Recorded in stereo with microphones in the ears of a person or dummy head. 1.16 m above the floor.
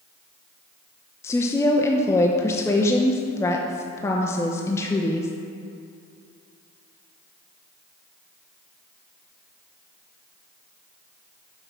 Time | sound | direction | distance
1.2 | a woman speaking | 15° left (ahead or behind) | 0.6 m